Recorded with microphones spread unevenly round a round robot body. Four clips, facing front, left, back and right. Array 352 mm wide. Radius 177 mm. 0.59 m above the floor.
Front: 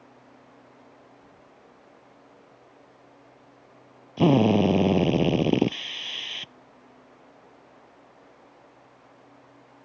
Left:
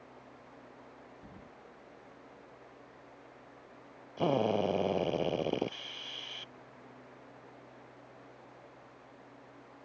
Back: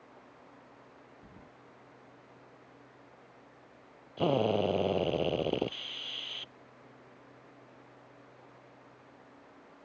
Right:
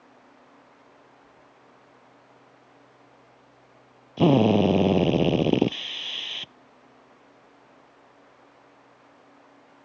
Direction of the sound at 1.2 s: 115° left.